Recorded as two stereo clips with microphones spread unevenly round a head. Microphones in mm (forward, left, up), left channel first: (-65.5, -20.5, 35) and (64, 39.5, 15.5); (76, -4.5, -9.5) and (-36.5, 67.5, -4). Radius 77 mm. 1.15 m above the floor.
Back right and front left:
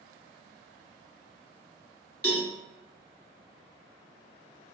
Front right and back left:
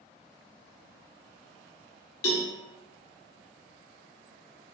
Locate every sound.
2.2 s a cowbell: 85° right, 0.9 m